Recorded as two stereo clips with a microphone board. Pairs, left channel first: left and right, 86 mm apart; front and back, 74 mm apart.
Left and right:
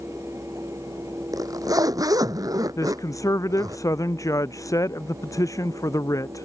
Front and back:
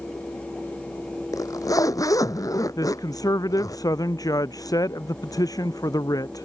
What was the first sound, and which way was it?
A zipper, 40° right.